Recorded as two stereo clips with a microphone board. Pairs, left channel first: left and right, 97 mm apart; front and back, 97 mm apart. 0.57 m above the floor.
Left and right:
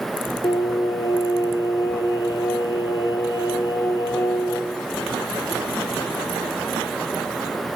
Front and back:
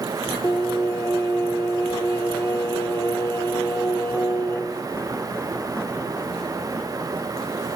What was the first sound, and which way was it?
Singing, 50° left.